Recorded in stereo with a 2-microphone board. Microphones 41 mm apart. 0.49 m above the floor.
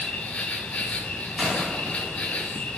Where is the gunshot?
20° right (ahead or behind), 1.1 m.